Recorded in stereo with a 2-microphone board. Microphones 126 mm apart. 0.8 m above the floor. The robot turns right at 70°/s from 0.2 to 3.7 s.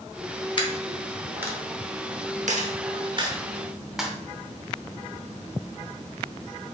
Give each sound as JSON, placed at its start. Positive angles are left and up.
{"t": 0.6, "sound": "a dropped coin", "side_deg": 40, "distance_m": 0.8}